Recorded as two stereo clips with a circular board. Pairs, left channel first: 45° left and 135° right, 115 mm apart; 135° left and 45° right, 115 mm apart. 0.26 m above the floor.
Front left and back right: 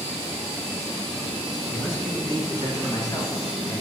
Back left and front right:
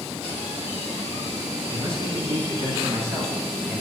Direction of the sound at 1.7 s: 15° right.